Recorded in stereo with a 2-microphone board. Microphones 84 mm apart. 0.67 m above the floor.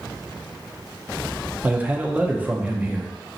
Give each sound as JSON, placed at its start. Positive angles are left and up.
{"t": 1.6, "sound": "a man speaking", "side_deg": -15, "distance_m": 0.5}